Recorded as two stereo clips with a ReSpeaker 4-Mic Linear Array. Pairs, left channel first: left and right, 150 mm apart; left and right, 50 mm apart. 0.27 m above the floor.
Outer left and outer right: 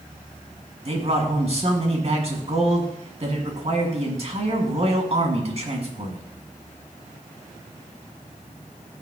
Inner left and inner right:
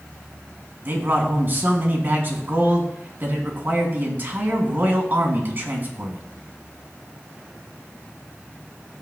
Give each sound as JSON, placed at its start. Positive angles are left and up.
{"t": 0.8, "sound": "a man speaking", "side_deg": -45, "distance_m": 2.0}